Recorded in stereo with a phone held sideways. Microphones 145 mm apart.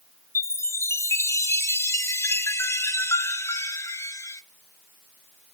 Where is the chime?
20° left (ahead or behind), 0.6 m.